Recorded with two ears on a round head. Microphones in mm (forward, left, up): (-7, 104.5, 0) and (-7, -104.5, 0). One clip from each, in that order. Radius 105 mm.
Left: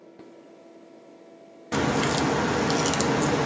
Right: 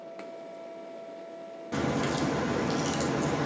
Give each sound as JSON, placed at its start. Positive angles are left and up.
{"t": 1.7, "sound": "a crack", "side_deg": 40, "distance_m": 0.5}